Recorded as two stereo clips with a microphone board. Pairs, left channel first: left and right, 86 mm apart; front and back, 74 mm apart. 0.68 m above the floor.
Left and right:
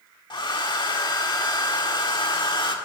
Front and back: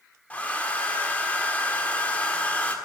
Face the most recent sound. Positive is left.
turn(degrees=70)